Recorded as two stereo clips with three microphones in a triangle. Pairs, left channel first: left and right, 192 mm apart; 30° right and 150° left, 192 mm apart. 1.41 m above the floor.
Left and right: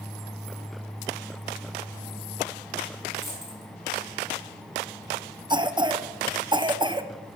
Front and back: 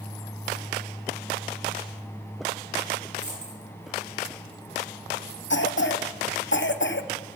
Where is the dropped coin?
Straight behind, 4.5 m.